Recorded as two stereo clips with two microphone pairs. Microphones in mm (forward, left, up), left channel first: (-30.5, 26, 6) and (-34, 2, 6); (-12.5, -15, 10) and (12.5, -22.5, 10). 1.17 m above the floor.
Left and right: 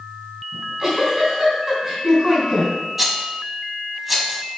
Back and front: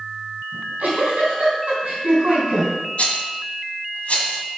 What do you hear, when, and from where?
0.5 s a giggle: 20° right, 4 m
3.0 s a rattle: straight behind, 1.7 m